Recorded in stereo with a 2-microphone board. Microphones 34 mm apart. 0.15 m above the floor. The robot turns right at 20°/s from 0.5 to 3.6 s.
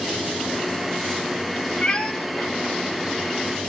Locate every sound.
1.8 s a cat meowing: 30° left (ahead or behind), 0.6 m; by 2.1 s 25° left (ahead or behind), 0.6 m